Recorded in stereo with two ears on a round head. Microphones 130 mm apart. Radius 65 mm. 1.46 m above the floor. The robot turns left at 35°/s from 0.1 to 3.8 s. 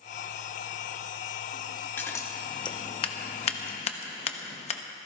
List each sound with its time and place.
2.0 s scissors: 15° left (ahead or behind), 0.9 m; by 4.8 s 45° left (ahead or behind), 0.9 m